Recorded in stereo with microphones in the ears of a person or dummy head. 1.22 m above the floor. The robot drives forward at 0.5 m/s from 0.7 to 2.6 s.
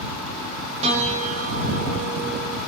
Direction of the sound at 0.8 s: 35° right (ahead or behind).